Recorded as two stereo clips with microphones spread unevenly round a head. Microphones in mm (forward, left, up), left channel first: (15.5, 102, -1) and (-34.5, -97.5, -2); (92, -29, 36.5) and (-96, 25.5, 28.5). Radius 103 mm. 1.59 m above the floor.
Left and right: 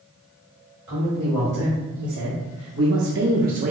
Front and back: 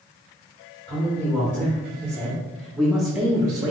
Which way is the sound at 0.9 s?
90° right.